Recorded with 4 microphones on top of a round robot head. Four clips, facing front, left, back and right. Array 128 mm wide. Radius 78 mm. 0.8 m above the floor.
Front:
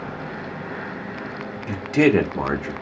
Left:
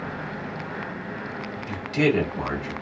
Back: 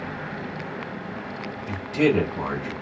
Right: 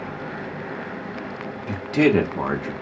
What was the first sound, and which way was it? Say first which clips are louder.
A man speaking: right 4 dB, front 4 dB; 35° right.